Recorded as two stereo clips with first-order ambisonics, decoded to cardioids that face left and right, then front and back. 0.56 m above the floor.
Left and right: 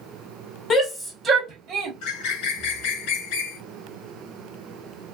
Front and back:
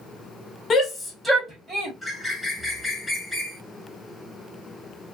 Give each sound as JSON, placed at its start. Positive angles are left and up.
{"t": 0.7, "sound": "a shout", "azimuth_deg": 50, "distance_m": 1.0}
{"t": 2.0, "sound": "a bird", "azimuth_deg": 90, "distance_m": 0.8}